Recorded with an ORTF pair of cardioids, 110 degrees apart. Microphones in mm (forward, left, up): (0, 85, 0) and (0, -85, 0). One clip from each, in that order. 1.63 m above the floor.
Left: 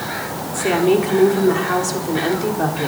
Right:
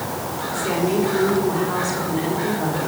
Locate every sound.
0.5 s a woman speaking: 45° left, 4.5 m